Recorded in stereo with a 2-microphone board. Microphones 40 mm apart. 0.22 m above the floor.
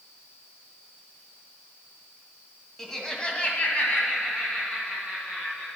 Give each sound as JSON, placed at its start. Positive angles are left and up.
{"t": 2.8, "sound": "laughter", "side_deg": 10, "distance_m": 1.2}